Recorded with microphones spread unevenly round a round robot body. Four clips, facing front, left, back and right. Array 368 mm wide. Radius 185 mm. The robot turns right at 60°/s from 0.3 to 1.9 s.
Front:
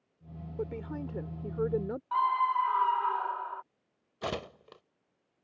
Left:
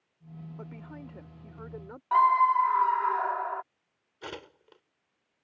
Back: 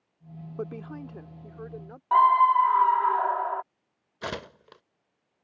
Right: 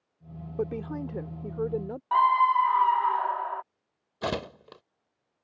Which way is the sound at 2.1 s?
175° left.